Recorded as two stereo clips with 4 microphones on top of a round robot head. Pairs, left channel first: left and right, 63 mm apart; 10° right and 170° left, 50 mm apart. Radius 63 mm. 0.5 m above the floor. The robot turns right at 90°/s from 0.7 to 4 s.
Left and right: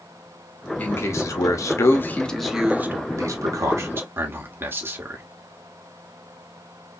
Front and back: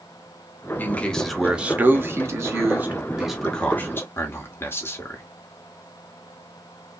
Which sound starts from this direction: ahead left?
A man speaking, at 0.8 s.